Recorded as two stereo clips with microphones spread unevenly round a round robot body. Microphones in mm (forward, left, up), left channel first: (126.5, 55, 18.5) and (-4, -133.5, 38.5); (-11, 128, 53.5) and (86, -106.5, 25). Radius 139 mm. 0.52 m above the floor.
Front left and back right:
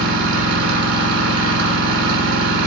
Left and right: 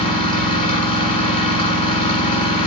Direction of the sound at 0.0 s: Straight behind.